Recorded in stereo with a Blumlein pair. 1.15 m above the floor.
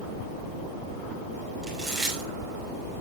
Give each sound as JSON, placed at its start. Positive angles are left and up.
{"t": 1.6, "sound": "chewing", "azimuth_deg": -15, "distance_m": 5.5}